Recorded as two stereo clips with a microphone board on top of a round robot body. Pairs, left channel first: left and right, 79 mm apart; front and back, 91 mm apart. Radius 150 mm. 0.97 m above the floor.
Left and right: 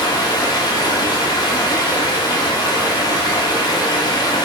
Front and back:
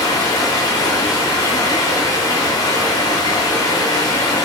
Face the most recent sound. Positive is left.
turn(degrees=55)